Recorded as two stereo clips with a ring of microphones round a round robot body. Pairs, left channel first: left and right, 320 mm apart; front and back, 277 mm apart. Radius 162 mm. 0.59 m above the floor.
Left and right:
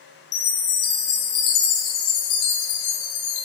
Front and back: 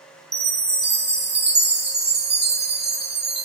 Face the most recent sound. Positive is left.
turn(degrees=125)